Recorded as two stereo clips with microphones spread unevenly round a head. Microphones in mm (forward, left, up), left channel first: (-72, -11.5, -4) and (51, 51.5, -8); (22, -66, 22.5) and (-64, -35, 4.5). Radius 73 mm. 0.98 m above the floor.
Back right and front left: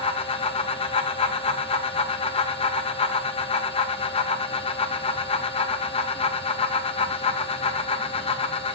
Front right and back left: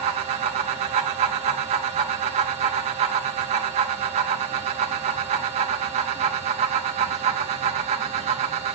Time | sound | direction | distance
0.0 | a fan | 155° left | 0.9 m